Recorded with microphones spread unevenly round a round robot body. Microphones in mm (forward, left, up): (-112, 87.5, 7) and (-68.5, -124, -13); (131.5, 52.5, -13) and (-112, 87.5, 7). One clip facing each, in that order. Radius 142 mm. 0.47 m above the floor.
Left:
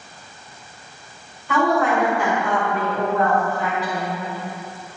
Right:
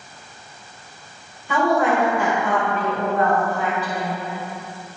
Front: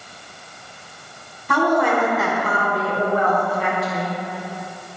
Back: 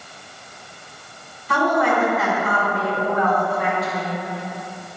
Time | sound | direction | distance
1.5 | a woman speaking | 5° right | 1.9 m